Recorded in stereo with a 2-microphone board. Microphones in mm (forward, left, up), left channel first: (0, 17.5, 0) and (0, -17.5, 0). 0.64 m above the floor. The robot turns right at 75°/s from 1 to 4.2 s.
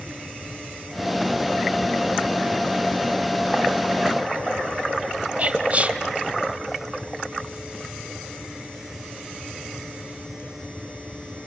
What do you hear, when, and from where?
5.4 s whispering: 40° right (ahead or behind), 3 m